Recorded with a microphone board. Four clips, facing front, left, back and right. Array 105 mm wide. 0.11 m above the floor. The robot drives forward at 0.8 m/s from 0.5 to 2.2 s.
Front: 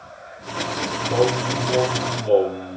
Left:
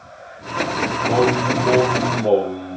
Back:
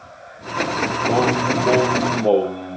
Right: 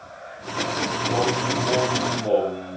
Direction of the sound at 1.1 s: 150° left.